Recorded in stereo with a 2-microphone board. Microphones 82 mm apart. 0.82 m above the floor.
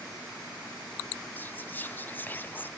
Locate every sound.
1.4 s whispering: 25° left (ahead or behind), 0.5 m